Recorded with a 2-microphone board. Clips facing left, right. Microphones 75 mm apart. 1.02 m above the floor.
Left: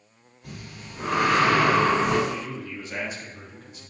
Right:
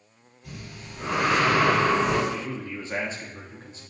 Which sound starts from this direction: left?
Breathing, at 0.4 s.